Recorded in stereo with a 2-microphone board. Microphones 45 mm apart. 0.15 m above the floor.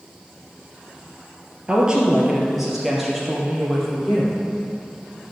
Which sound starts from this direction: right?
A woman speaking, at 1.7 s.